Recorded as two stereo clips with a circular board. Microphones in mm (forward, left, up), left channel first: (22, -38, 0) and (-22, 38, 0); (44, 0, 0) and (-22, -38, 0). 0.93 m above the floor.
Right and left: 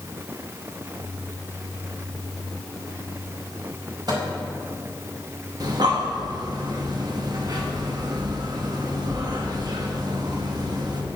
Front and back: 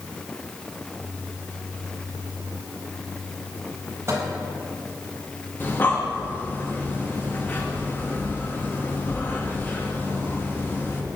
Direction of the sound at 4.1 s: 155° left.